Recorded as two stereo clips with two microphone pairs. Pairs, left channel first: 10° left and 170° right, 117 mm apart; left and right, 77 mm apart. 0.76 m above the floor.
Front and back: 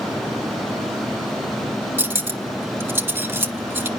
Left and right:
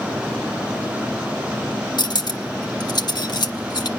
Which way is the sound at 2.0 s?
120° left.